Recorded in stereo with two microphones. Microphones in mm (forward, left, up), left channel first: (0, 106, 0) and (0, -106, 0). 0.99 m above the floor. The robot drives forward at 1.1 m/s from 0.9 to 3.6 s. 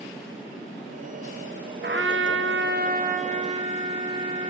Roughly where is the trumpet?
Right.